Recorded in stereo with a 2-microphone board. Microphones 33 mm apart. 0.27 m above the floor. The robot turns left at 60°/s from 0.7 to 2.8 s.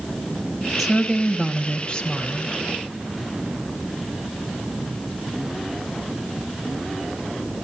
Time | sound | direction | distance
0.8 | a woman speaking | 5° left (ahead or behind) | 1.1 m